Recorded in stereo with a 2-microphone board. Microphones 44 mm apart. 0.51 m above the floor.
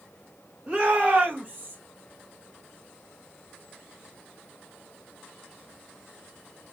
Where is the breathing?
No breathing in this recording.